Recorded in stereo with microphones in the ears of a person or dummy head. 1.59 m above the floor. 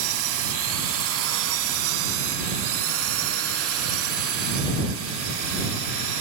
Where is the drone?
75° right (ahead or behind); by 6.2 s 70° right (ahead or behind).